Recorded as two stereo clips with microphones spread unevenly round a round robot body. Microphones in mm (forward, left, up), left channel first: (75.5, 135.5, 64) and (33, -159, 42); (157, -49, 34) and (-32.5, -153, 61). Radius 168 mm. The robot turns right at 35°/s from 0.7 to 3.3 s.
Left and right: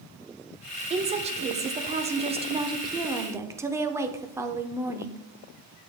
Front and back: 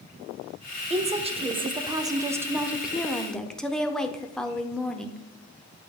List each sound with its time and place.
0.9 s a woman speaking: 125° right, 0.8 m; by 5.2 s 40° right, 0.8 m